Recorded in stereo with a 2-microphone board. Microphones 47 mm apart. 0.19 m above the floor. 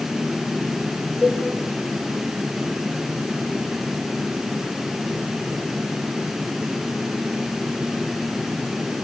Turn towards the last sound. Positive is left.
turn(degrees=15)  # may be behind; listen again after turning